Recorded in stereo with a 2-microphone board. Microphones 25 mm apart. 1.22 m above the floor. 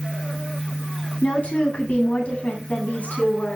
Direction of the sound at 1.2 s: 70° left (ahead or behind).